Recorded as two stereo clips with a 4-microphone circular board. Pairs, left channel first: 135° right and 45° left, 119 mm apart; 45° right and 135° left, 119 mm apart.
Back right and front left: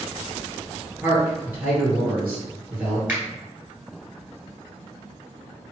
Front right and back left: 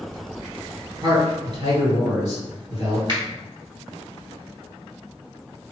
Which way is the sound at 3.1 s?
115° left.